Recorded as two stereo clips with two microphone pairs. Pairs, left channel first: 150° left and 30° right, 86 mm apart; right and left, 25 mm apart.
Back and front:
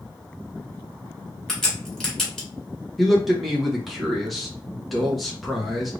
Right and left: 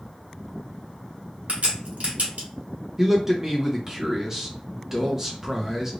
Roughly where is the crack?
Ahead left.